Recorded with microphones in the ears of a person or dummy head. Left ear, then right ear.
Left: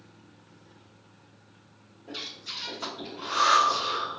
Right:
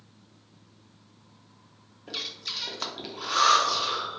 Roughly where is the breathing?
Right.